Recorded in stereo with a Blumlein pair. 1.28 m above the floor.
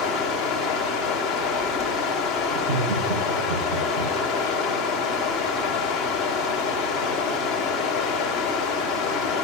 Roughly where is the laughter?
Ahead right.